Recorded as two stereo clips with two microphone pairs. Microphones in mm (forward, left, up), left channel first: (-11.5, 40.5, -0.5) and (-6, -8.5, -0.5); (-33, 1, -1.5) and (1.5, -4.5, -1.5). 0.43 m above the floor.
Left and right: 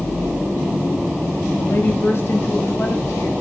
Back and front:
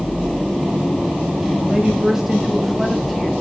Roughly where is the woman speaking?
Ahead left.